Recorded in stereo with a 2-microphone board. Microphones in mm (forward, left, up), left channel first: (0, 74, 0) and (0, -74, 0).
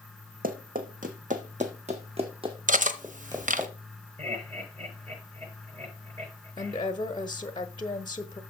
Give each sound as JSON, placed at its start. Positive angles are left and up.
{"t": 0.4, "sound": "running footsteps", "side_deg": -80, "distance_m": 1.5}
{"t": 2.7, "sound": "cutlery clinking", "side_deg": -60, "distance_m": 0.9}
{"t": 4.2, "sound": "laughter", "side_deg": -40, "distance_m": 7.0}
{"t": 6.6, "sound": "a woman speaking", "side_deg": 30, "distance_m": 0.9}